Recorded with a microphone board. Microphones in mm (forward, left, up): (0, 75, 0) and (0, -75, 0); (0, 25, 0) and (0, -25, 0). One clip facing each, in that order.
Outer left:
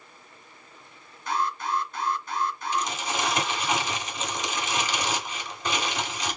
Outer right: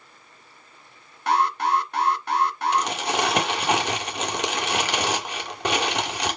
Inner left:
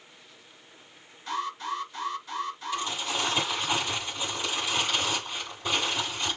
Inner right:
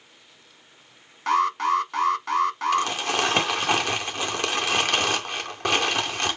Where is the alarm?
70° right (ahead or behind), 1.1 m.